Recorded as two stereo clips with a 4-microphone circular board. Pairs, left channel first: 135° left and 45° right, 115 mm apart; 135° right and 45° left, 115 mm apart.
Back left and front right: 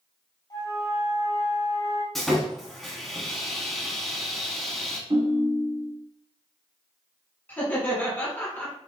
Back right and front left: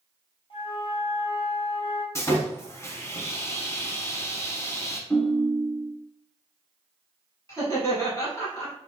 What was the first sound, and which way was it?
A flute, 175° right.